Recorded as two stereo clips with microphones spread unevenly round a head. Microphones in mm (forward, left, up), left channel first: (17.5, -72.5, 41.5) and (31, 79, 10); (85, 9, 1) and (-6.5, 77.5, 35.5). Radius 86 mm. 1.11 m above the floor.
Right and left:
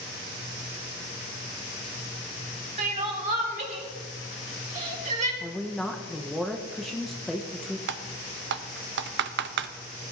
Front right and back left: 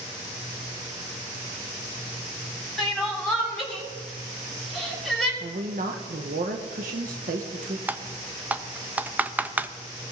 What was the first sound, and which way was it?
Crying, 45° left.